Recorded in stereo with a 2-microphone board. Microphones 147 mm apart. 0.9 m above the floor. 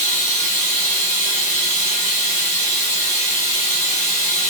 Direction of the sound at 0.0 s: 55° left (ahead or behind).